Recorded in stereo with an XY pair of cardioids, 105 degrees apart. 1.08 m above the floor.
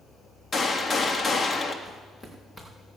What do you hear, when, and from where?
0.5 s a gunshot: 35° left, 1.7 m
1.9 s footsteps: 20° left, 5.5 m